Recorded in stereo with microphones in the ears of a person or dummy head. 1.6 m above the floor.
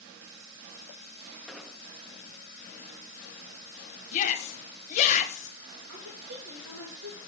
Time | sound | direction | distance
1.5 | an explosion | 5° left (ahead or behind) | 0.7 m
4.1 | a shout | 40° left (ahead or behind) | 1.3 m
5.9 | a woman speaking | 85° right | 2.5 m